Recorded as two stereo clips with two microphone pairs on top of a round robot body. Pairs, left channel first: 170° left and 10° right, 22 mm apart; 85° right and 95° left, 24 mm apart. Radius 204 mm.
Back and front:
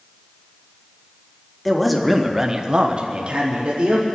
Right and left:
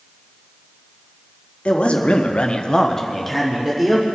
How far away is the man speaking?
About 1.9 m.